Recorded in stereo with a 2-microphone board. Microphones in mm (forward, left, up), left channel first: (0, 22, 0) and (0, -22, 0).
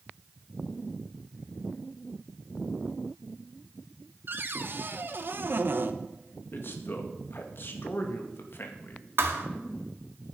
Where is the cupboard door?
50° right (ahead or behind), 0.9 m.